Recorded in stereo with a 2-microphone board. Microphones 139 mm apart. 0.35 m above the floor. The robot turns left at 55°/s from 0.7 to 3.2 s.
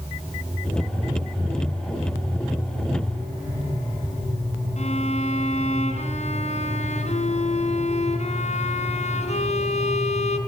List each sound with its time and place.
4.8 s a violin: 55° left (ahead or behind), 3.5 m